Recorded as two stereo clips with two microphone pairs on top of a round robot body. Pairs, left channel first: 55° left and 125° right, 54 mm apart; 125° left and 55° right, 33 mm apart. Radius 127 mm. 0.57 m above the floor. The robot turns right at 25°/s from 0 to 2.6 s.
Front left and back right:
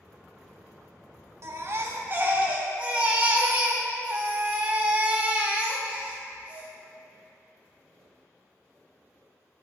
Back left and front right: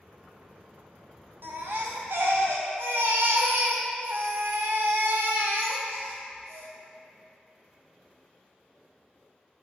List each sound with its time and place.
1.4 s a baby crying: 85° right, 0.5 m; by 6.7 s 55° right, 0.5 m